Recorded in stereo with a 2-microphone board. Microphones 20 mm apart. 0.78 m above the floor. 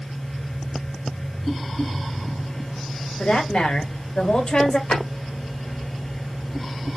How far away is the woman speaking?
About 2 m.